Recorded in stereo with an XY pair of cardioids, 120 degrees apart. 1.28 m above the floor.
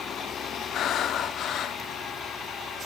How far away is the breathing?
About 1.6 m.